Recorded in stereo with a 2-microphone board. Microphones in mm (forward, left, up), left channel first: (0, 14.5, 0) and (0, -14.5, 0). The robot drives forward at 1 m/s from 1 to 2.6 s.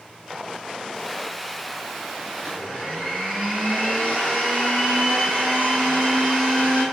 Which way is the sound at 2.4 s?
55° left (ahead or behind).